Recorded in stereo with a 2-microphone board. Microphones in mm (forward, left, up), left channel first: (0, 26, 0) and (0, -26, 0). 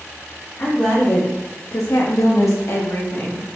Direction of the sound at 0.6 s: 30° left (ahead or behind).